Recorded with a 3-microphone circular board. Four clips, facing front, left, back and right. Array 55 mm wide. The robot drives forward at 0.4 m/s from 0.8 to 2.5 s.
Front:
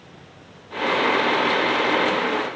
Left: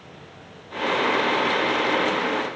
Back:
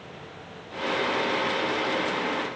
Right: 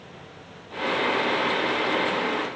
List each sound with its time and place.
Only background noise.